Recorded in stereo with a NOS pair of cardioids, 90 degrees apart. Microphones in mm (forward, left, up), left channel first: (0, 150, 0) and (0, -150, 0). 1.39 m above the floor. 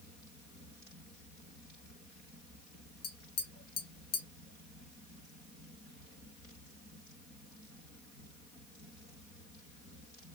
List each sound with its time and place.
3.0 s tapping: 55° left, 0.8 m